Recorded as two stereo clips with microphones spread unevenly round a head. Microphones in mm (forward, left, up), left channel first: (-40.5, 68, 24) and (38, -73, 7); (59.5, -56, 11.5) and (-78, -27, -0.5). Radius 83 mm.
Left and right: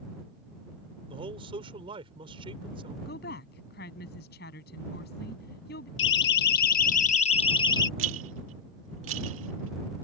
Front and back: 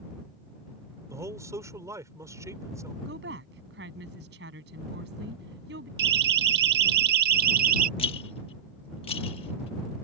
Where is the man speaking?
120° right.